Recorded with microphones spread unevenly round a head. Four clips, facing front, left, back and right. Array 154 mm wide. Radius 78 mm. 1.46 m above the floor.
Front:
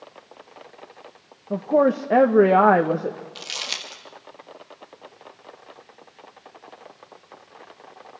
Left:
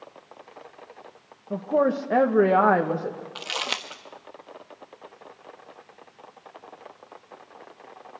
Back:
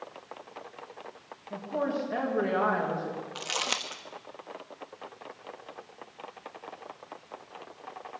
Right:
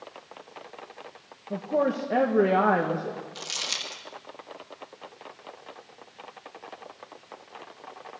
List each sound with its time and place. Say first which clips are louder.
1.5 s a woman speaking: left 3 dB, front 12 dB; 15° left, 1.2 m
3.4 s crumpling: left 6 dB, back 3 dB; 115° left, 1.3 m